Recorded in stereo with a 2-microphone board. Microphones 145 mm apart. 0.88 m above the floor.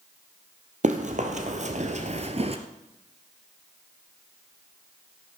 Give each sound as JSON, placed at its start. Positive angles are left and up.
{"t": 0.8, "sound": "running footsteps", "side_deg": -60, "distance_m": 1.8}